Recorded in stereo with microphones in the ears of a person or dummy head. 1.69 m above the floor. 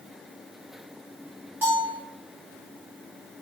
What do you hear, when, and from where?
1.6 s a bell: 5° right (ahead or behind), 3 m